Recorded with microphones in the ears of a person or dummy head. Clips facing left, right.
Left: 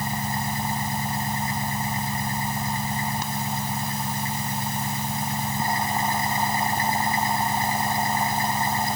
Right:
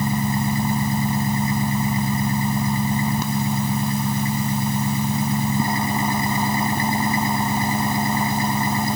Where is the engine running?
80° right.